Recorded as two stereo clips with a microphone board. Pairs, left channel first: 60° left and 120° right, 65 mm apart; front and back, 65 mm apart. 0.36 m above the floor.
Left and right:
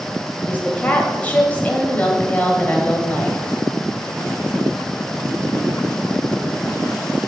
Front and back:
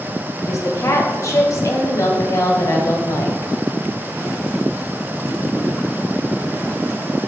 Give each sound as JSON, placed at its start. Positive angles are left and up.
{"t": 0.4, "sound": "a woman speaking", "azimuth_deg": 0, "distance_m": 1.8}